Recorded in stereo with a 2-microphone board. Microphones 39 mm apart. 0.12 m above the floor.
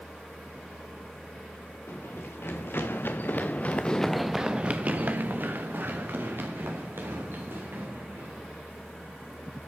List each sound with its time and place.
1.9 s running footsteps: 75° left (ahead or behind), 2 m; by 8.5 s 75° right (ahead or behind), 4 m